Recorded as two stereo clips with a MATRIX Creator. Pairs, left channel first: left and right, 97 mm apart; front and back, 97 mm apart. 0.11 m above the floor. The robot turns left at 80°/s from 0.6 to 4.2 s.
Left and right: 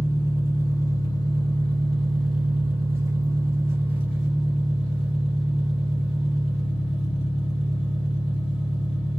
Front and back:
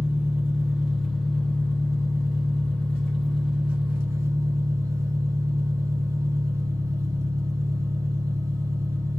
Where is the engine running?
125° left, 1.6 m; by 9.2 s 160° right, 1.6 m.